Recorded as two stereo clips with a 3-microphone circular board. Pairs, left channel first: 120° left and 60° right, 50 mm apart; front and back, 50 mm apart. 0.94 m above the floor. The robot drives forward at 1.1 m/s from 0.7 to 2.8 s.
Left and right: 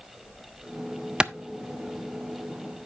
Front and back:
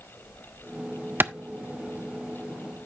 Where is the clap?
130° right, 0.6 m; by 1.3 s 140° right, 0.7 m.